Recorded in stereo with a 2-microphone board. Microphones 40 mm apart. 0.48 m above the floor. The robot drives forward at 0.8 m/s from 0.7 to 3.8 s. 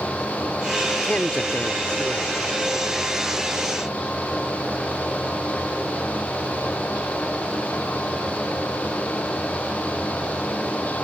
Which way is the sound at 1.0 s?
40° left (ahead or behind).